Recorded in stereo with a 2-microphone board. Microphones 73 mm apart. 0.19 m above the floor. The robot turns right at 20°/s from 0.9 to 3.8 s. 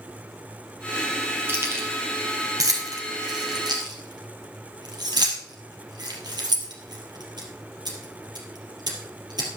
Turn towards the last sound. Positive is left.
turn(degrees=-70)  # may be behind; listen again after turning